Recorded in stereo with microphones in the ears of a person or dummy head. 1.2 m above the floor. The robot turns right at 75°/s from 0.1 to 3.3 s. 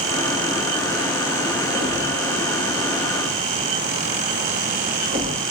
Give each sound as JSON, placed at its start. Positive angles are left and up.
{"t": 1.8, "sound": "a thud", "side_deg": -40, "distance_m": 9.0}